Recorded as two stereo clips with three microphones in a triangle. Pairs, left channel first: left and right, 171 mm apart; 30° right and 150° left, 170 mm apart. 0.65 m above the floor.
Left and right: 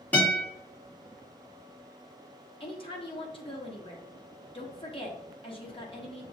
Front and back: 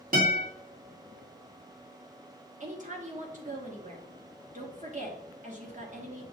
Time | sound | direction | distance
0.1 | a guitar | 170° left | 2 m
2.6 | a woman speaking | 135° left | 1.2 m